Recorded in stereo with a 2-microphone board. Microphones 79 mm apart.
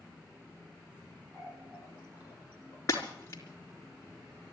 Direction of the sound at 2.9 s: 40° left (ahead or behind).